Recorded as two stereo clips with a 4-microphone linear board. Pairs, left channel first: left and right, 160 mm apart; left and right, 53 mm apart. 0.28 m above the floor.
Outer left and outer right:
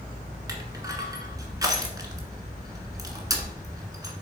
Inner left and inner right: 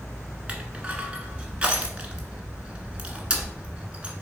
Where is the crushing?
20° right (ahead or behind), 1.3 m.